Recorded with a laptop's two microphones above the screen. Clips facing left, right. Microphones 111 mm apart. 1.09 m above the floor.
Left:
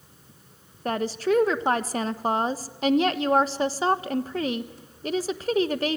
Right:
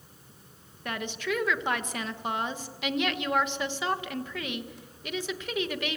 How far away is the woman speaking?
About 1.2 m.